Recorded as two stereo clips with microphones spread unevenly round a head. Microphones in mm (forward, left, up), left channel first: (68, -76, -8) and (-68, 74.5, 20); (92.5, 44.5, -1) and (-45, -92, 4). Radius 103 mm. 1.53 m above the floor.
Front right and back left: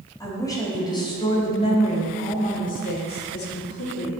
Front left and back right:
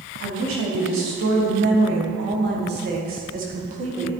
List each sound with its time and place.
0.2 s a woman speaking: 125° right, 3 m; by 4.1 s 75° right, 1.8 m